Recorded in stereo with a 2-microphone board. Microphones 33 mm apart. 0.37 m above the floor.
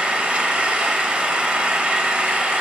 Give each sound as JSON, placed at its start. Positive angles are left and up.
{"t": 0.0, "sound": "an engine running", "side_deg": -40, "distance_m": 0.9}